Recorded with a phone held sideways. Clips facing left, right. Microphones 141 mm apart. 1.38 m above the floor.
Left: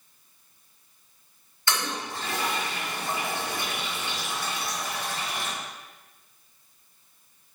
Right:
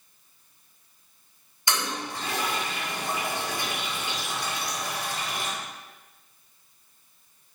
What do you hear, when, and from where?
1.7 s a toilet flushing: 15° right (ahead or behind), 4.5 m